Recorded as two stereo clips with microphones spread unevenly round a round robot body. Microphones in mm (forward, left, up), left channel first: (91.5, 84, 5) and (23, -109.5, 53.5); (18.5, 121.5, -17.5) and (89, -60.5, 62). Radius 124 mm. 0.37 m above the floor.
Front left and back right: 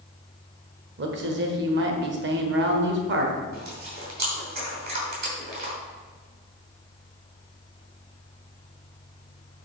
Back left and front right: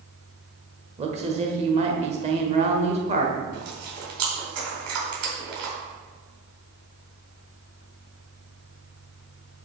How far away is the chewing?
About 4.5 m.